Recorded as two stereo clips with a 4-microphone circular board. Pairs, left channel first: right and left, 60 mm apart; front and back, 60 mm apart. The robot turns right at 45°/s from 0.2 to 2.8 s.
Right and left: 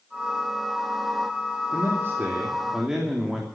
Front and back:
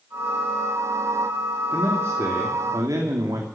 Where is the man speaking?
120° left, 3 m; by 3.5 s 170° left, 3 m.